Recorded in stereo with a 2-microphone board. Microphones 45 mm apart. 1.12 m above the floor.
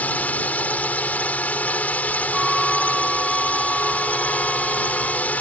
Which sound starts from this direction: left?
A drone, at 0.0 s.